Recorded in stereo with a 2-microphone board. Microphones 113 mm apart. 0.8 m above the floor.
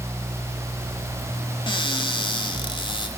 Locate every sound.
1.7 s a cupboard door: 45° left (ahead or behind), 1.8 m